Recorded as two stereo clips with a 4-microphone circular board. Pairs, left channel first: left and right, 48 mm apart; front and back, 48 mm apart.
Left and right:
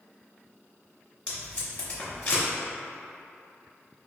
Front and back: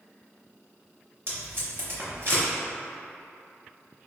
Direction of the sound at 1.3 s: 150° left.